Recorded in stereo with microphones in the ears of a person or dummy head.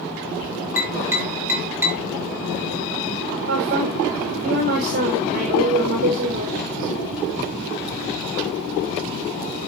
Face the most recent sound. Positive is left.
turn(degrees=-50)  # may be behind; listen again after turning